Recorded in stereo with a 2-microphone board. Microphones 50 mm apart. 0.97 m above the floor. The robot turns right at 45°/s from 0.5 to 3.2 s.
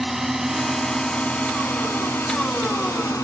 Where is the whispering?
No whispering in this recording.